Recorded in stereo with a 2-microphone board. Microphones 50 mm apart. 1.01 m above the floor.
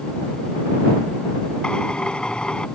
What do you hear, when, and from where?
1.6 s a drill: 15° left (ahead or behind)